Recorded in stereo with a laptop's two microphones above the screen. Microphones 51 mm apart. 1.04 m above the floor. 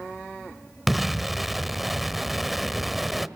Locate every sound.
0.9 s an explosion: centre (ahead or behind), 1.3 m